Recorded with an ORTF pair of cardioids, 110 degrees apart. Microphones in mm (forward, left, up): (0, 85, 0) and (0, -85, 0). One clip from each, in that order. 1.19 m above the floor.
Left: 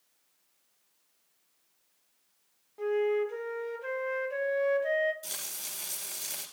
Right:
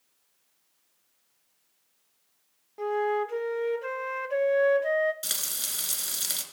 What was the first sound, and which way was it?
A flute, 25° right.